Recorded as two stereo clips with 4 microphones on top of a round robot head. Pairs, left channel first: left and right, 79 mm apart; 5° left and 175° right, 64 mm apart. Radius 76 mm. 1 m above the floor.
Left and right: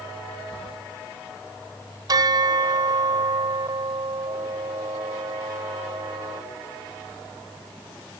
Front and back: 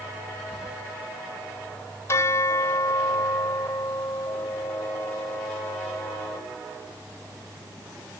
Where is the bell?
50° right.